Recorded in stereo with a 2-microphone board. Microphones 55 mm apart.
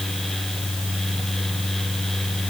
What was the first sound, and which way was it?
Only background noise.